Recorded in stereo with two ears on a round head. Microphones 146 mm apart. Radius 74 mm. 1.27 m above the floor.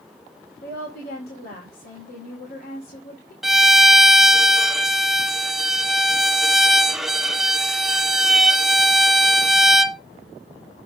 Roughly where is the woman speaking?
Left.